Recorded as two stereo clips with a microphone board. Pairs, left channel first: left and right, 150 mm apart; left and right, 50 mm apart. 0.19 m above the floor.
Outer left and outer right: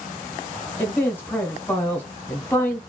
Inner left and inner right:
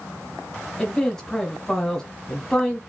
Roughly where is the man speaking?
Centre.